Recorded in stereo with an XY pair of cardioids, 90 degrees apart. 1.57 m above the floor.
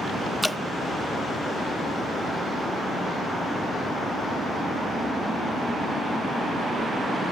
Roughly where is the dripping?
Ahead.